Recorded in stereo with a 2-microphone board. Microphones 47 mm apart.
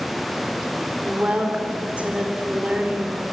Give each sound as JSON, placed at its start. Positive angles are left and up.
{"t": 1.1, "sound": "a woman speaking", "side_deg": -30, "distance_m": 4.0}